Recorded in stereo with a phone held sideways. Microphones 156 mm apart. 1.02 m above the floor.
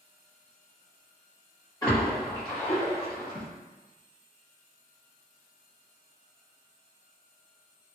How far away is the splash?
About 1.4 m.